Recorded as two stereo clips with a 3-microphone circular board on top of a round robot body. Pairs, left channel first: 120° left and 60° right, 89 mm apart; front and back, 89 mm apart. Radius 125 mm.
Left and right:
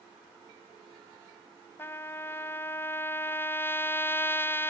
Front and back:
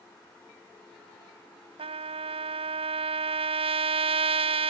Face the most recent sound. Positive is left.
turn(degrees=-170)